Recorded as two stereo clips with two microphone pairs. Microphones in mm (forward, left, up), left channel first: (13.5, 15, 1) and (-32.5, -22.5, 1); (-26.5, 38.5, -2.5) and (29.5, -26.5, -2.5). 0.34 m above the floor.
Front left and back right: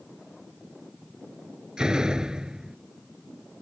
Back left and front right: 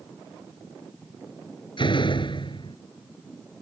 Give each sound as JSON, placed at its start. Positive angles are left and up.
{"t": 1.8, "sound": "a door slam", "azimuth_deg": 145}